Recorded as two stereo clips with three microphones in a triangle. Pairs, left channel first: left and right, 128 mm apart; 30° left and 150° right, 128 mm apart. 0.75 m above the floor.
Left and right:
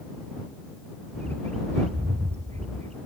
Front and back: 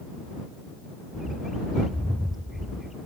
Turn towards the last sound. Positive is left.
turn(degrees=-65)